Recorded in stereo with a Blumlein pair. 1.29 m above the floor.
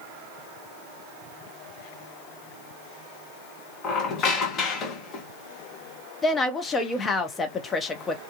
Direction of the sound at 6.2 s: 15° left.